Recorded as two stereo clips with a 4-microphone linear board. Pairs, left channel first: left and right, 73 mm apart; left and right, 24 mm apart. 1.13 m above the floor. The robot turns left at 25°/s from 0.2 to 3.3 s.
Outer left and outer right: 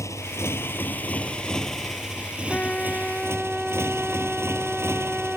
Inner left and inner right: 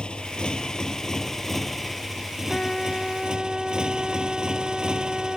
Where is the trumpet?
15° left (ahead or behind); by 5.4 s 5° right (ahead or behind).